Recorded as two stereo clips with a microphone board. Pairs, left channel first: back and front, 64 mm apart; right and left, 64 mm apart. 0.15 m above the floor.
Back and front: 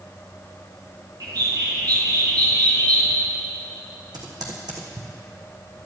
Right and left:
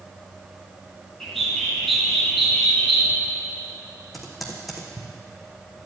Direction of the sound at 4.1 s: Straight ahead.